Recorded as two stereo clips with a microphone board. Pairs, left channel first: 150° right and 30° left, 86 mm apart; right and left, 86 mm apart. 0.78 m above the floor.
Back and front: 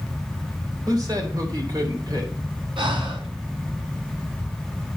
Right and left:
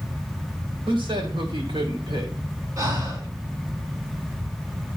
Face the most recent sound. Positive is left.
turn(degrees=45)